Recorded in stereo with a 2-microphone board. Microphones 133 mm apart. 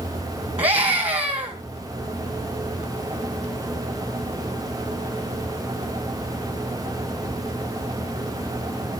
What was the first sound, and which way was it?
A scream, 45° right (ahead or behind).